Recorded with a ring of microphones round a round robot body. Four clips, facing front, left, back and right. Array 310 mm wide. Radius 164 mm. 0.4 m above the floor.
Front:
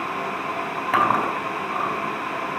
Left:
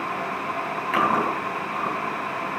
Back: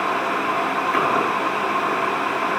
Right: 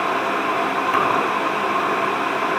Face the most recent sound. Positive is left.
turn(degrees=-15)